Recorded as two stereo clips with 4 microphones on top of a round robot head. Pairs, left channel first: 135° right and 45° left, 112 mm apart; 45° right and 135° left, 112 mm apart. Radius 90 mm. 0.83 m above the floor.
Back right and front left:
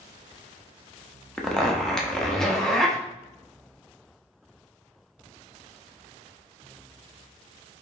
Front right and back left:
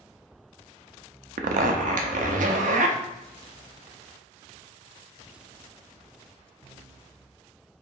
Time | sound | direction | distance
1.4 | a zipper | 135° left | 0.6 m